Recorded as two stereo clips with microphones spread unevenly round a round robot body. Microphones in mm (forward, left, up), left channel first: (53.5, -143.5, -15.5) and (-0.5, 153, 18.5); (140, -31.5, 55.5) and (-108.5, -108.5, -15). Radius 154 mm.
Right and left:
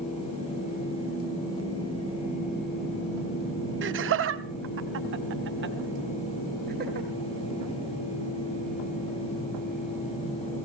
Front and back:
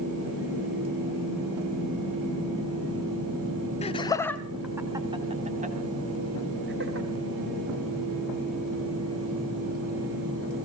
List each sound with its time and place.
3.8 s laughter: 90° left, 1.2 m; by 7.1 s 165° left, 2.5 m